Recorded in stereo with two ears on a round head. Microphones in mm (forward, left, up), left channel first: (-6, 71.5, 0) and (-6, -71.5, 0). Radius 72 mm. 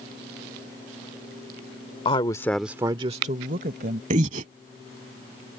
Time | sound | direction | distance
2.0 | a woman speaking | 35° left (ahead or behind) | ?
4.1 | breathing | 50° right (ahead or behind) | ?